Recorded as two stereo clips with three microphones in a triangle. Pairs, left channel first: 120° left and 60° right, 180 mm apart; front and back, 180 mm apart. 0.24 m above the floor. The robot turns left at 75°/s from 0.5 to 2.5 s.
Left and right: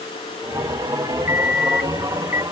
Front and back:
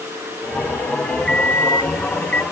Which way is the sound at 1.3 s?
160° left.